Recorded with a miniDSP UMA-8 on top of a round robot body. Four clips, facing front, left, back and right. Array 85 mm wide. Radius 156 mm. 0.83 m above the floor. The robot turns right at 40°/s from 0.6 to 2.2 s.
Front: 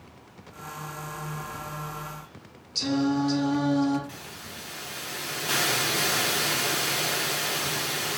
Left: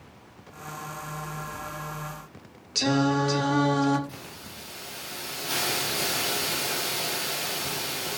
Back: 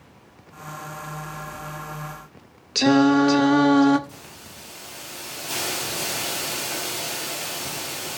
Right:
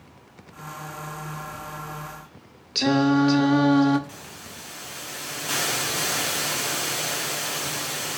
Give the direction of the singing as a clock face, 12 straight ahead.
5 o'clock.